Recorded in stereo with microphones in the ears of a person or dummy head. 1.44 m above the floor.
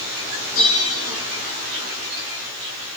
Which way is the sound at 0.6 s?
70° left (ahead or behind).